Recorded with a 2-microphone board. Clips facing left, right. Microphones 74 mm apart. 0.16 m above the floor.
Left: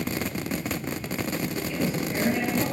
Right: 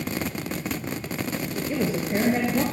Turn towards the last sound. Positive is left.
turn(degrees=-30)  # may be behind; listen again after turning